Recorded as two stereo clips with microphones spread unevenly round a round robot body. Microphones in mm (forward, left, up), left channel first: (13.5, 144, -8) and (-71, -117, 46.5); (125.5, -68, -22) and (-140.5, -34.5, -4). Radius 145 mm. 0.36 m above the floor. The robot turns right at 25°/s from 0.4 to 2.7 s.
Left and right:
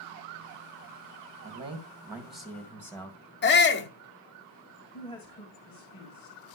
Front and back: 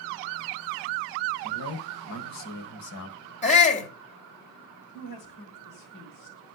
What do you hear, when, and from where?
1.4 s a man speaking: 35° right, 3 m; by 3.2 s 5° right, 3 m
3.4 s a shout: 50° left, 2 m
4.9 s a woman speaking: 5° left, 3.5 m